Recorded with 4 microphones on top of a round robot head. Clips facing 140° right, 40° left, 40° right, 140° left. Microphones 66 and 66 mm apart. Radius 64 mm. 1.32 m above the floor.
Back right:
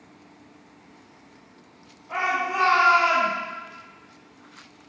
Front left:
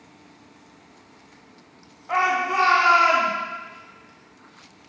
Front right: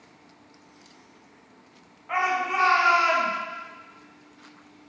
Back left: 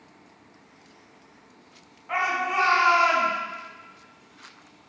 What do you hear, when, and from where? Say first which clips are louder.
2.1 s a shout: front left 4 dB, even; 45° left, 3 m; by 3.3 s 50° left, 4.5 m